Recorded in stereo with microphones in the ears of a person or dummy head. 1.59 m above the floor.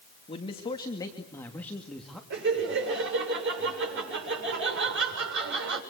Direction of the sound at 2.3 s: 65° right (ahead or behind).